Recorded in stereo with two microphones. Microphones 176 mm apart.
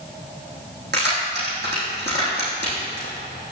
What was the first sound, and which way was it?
Keys jangling, 75° right (ahead or behind).